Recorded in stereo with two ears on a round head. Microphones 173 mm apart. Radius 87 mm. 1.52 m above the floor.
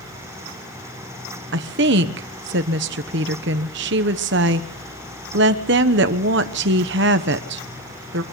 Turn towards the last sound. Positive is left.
turn(degrees=-60)  # may be behind; listen again after turning